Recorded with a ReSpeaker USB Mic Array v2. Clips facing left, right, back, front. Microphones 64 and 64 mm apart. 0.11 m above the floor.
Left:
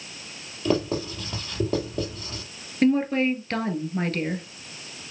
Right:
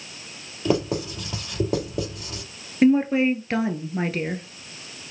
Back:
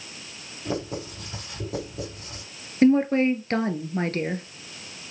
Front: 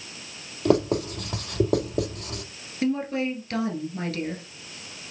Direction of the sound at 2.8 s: 165° right.